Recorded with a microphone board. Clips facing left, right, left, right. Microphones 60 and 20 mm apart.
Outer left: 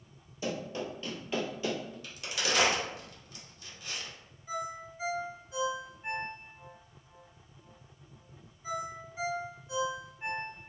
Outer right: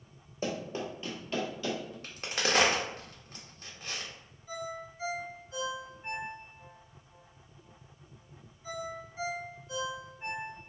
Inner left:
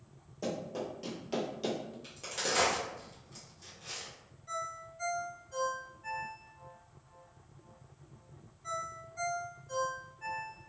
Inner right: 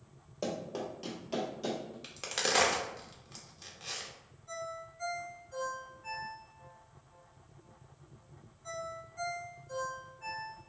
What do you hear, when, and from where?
0.4 s running footsteps: 35° right (ahead or behind), 1.2 m; by 1.9 s 30° left (ahead or behind), 1.3 m
2.0 s a crack: 45° right (ahead or behind), 0.7 m
4.5 s a ringtone: 20° left (ahead or behind), 1.3 m